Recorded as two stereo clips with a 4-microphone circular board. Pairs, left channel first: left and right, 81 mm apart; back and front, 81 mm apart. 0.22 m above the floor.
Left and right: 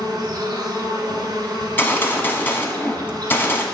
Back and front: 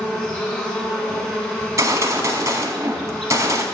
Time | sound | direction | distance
0.0 | an insect | 100° right | 2 m
1.6 | a gunshot | 35° left | 1.0 m